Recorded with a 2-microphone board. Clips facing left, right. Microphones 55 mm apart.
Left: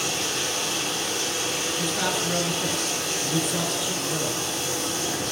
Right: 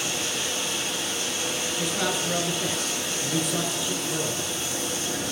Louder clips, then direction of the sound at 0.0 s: Left 2 dB; 65° left (ahead or behind).